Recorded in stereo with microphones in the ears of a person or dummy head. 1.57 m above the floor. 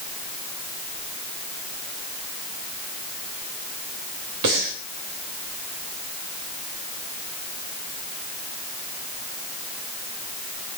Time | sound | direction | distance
4.4 | breathing | 65° right (ahead or behind) | 3 m